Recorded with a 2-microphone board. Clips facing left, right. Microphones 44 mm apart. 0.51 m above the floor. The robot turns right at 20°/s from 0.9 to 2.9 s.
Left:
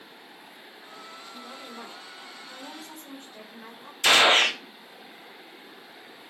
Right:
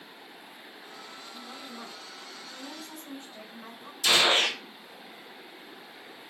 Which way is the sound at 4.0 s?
65° left (ahead or behind).